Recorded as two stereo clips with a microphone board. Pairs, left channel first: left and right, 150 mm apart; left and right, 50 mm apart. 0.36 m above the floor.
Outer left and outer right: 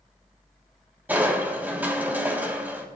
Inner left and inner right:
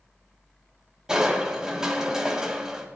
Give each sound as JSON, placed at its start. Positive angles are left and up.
{"t": 1.1, "sound": "crushing", "side_deg": -10, "distance_m": 2.5}